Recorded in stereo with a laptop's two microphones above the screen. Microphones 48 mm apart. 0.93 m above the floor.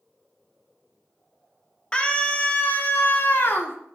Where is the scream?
20° left (ahead or behind), 1.4 m; by 3.8 s 60° left (ahead or behind), 1.8 m.